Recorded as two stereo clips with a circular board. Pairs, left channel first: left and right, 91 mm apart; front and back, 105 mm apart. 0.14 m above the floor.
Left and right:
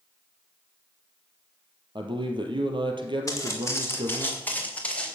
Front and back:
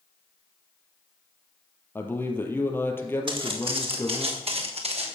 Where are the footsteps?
145° left, 4 m; by 5.2 s 170° left, 4.5 m.